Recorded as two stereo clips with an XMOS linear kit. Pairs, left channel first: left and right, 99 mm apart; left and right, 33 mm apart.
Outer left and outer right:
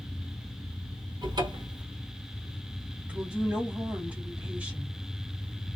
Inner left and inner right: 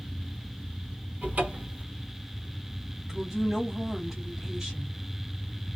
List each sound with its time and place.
1.2 s a cupboard door: 45° right (ahead or behind), 1.1 m
3.0 s a woman speaking: 10° right (ahead or behind), 1.5 m